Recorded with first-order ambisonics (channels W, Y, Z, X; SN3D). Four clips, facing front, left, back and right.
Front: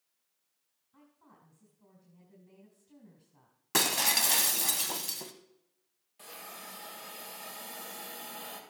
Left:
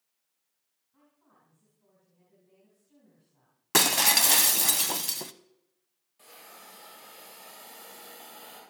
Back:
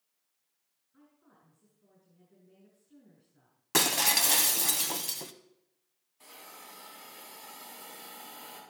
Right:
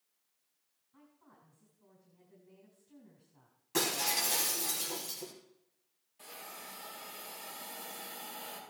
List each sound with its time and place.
0.9 s a woman speaking: 15° right, 4.5 m
3.7 s breaking glass: 95° left, 0.7 m
6.2 s a hiss: straight ahead, 4 m